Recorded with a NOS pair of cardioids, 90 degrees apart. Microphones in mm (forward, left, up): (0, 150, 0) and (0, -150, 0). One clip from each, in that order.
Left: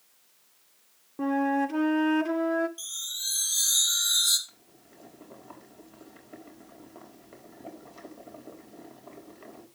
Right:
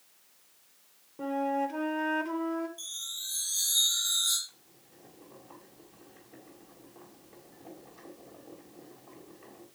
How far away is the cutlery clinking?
I don't hear cutlery clinking.